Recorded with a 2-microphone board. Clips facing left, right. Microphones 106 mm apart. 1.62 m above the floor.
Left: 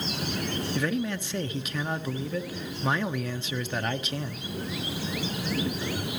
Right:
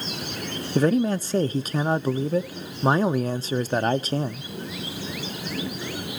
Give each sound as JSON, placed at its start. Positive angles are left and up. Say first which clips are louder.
{"t": 0.8, "sound": "a man speaking", "louder": "right 11 dB", "side_deg": -35, "distance_m": 0.5}